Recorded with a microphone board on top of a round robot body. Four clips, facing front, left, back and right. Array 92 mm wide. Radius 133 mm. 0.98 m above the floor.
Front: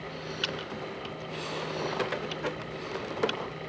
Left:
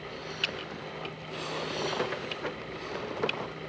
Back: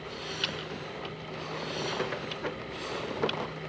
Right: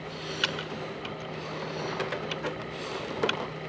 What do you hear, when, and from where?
0.4 s typing on a keyboard: 85° right